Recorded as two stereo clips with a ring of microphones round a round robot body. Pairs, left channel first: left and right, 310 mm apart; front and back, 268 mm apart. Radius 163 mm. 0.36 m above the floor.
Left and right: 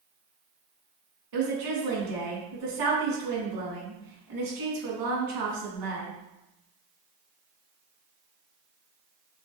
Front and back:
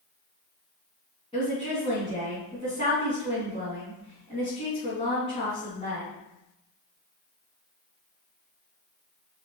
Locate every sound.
1.3 s a woman speaking: 75° right, 3.5 m